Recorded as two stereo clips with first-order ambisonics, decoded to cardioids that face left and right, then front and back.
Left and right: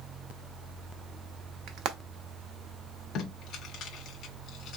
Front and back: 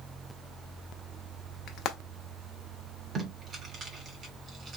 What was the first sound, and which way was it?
Frying, 50° right.